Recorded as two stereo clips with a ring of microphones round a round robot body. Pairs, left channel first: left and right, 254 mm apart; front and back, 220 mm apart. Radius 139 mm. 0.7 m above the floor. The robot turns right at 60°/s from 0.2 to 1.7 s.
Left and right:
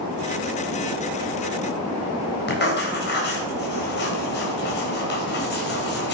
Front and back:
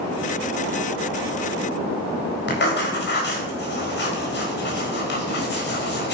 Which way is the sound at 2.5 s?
40° left.